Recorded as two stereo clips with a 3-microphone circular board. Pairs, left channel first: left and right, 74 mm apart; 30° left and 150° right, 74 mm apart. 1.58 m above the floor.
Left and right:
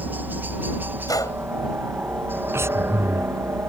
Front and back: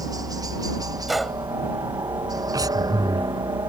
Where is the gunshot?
120° left.